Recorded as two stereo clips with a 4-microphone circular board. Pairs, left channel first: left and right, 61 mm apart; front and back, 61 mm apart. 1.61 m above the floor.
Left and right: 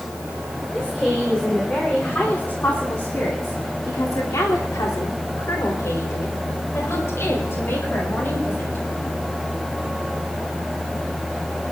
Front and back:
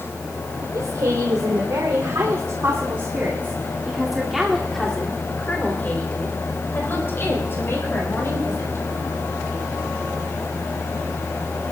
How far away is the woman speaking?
About 3.5 m.